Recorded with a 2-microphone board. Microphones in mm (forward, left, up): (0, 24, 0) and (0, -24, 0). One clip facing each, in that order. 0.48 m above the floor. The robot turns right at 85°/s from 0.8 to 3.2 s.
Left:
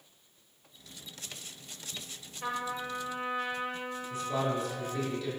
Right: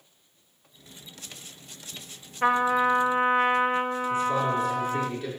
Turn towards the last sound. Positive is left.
turn(degrees=-45)  # may be behind; listen again after turning